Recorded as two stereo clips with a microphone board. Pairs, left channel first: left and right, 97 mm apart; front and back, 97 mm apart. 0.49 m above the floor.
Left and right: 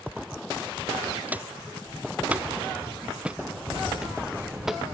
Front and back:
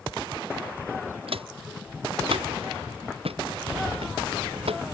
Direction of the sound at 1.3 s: 165° right.